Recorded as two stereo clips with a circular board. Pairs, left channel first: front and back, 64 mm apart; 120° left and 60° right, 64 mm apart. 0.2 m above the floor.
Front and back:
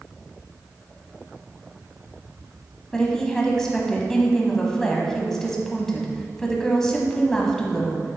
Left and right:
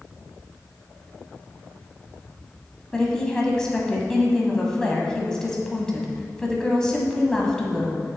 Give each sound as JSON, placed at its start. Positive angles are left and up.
{"t": 2.9, "sound": "a woman speaking", "azimuth_deg": 65, "distance_m": 1.0}